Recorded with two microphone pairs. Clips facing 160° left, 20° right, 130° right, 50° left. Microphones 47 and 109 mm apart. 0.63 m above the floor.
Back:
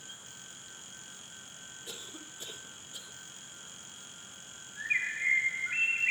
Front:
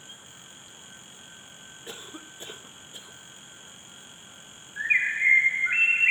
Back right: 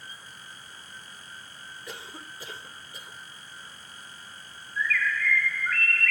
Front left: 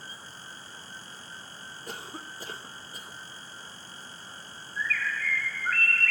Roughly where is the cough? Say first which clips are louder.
Front 6 dB, front left 2 dB; ahead.